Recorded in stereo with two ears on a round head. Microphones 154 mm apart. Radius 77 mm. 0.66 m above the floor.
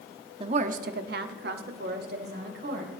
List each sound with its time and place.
0.4 s a woman speaking: 30° right (ahead or behind), 1.0 m; by 2.9 s 60° right (ahead or behind), 3 m